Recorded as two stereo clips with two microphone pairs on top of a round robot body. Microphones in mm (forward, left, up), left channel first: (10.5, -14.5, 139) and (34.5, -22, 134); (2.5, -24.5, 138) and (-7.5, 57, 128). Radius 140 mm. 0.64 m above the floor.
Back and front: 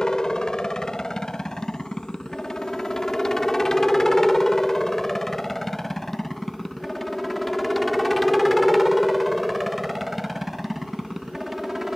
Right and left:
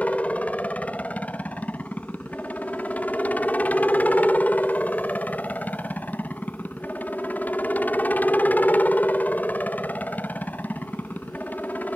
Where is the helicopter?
150° right; by 12.0 s 35° right.